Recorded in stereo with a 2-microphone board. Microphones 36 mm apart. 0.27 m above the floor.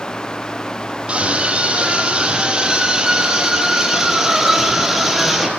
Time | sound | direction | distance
1.1 | a scream | 30° right (ahead or behind) | 10 m